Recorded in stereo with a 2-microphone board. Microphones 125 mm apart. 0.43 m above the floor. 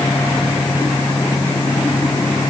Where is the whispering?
I don't hear whispering.